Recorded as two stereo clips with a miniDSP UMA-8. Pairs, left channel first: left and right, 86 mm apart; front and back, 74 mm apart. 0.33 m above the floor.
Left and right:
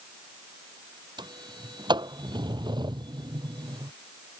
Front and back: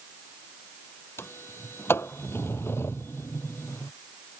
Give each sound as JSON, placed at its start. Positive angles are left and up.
{"t": 1.2, "sound": "a sliding door", "azimuth_deg": -60}